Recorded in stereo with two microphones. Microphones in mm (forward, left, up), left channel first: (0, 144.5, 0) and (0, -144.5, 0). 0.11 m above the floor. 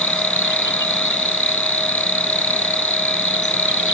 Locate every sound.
0.0 s an insect: 85° left